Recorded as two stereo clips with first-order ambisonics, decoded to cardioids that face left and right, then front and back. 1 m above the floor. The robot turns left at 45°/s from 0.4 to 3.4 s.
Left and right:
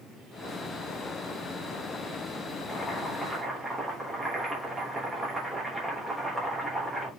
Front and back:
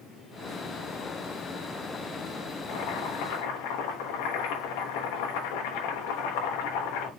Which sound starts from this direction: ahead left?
Boiling, at 2.7 s.